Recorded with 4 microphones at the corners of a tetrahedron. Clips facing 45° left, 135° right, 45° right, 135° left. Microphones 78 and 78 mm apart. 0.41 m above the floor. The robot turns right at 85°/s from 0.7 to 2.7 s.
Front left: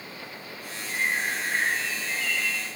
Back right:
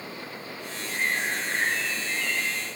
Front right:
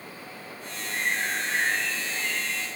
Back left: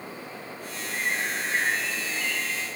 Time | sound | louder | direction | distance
0.9 | a bird | even, front right 1 dB | 30° left | 9 m